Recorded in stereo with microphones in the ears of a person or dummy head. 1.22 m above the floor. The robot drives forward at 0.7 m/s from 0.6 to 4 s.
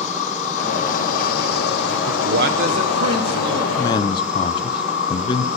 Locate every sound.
0.0 s an insect: 35° left (ahead or behind), 1.7 m
2.1 s a man speaking: 55° right (ahead or behind), 0.6 m; by 3.7 s 20° right (ahead or behind), 1.3 m
3.8 s a man speaking: 15° left (ahead or behind), 0.6 m; by 5.5 s 20° left (ahead or behind), 0.5 m